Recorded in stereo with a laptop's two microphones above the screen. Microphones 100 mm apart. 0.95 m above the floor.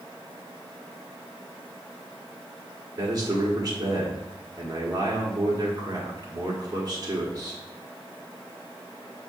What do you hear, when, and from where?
3.0 s a man speaking: 40° right (ahead or behind), 1.5 m